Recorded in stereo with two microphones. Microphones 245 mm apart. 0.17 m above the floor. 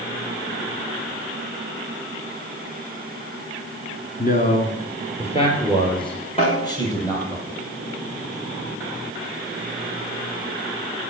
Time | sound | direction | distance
4.2 | a man speaking | 35° left (ahead or behind) | 2 m
6.4 | a snare drum | 25° left (ahead or behind) | 8.5 m